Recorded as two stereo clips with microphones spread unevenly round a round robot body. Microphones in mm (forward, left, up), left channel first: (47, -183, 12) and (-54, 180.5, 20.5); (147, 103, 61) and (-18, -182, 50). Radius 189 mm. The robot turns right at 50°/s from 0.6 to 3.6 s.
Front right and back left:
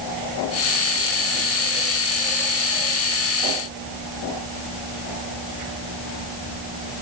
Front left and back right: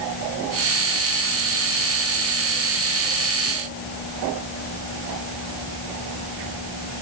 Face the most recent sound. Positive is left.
No sound to turn to.